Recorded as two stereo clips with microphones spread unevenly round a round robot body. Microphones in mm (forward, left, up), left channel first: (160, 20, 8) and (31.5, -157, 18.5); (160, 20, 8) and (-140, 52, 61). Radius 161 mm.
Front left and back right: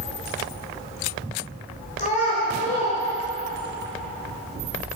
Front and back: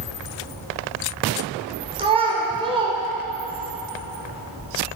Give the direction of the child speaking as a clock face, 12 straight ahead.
9 o'clock.